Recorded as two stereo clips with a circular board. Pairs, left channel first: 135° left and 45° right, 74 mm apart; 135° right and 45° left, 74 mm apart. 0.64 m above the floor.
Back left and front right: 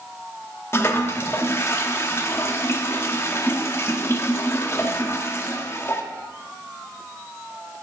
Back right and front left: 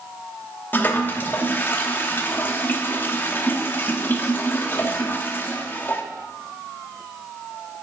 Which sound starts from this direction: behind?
A toilet flushing, at 0.7 s.